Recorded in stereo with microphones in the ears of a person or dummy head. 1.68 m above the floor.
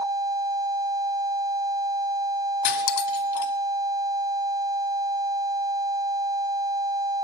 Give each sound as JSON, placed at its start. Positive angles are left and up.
{"t": 2.6, "sound": "cutlery clinking", "side_deg": 50, "distance_m": 2.5}